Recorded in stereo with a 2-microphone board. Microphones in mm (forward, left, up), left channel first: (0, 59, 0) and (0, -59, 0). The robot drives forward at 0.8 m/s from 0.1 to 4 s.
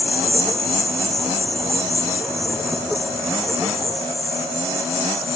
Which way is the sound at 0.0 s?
Centre (ahead or behind).